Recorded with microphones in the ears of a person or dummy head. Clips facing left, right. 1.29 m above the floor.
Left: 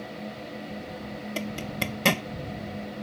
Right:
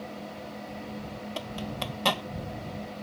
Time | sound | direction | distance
1.4 | a zipper | 25° left (ahead or behind) | ?